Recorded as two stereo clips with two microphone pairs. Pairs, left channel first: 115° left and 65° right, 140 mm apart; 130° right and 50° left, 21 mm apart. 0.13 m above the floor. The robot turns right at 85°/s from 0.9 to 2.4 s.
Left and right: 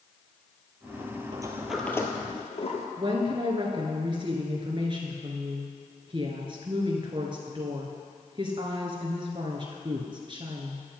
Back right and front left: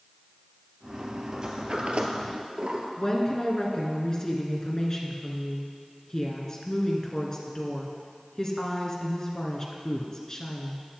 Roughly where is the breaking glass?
I don't hear breaking glass.